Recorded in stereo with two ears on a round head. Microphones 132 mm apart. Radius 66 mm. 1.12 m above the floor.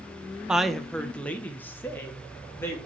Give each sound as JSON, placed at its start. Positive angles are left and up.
{"t": 0.5, "sound": "a woman speaking", "side_deg": -5, "distance_m": 0.5}